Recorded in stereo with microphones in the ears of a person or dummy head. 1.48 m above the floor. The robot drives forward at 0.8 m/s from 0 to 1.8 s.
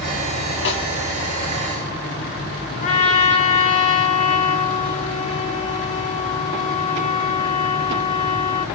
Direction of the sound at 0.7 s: 65° left (ahead or behind).